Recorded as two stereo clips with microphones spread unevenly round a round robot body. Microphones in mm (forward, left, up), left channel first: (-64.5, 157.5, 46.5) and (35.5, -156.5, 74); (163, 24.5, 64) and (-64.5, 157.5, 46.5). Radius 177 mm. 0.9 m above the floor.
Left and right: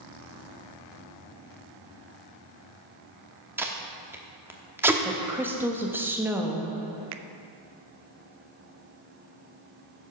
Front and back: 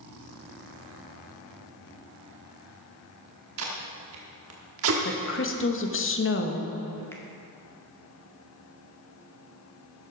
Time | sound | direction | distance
3.6 | tape being pulled | 155° right | 0.9 m
5.0 | a woman speaking | 15° left | 1.3 m
7.1 | a finger snap | 115° right | 0.6 m